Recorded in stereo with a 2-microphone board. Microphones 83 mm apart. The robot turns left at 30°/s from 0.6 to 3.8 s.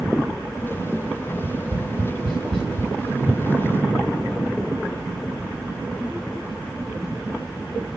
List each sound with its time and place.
1.3 s tapping: 50° right (ahead or behind), 3 m; by 2.9 s 80° right, 3 m